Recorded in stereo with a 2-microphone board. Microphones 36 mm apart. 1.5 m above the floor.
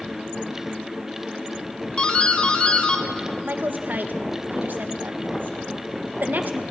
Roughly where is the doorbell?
Left.